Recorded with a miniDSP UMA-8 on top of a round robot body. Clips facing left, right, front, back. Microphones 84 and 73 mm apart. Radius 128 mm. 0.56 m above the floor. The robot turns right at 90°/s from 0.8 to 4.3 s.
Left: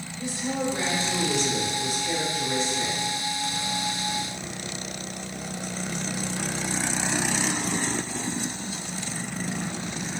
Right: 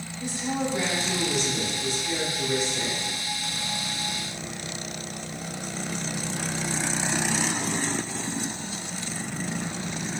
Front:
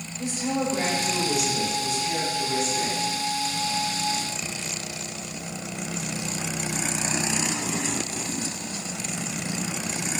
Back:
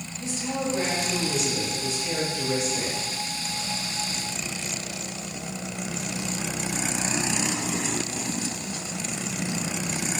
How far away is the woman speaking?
About 2.5 m.